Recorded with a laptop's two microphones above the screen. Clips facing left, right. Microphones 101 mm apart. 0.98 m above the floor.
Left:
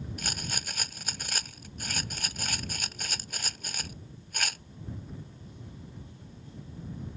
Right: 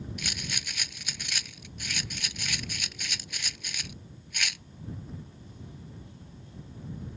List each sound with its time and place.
0.2 s a rattle: 40° left (ahead or behind)